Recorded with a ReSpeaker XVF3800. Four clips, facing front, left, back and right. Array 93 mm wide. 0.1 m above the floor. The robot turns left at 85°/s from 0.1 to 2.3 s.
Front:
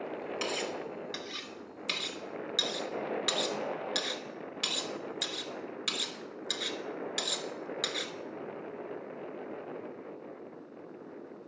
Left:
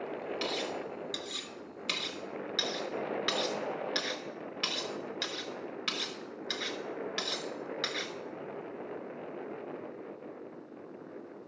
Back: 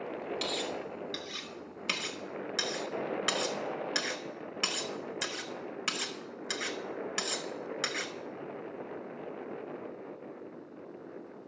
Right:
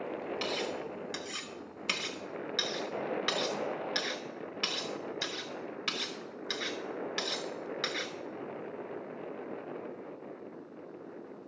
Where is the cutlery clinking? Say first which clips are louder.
Even, front 1 dB; 10° right, 0.7 m; by 8.1 s 170° right, 0.7 m.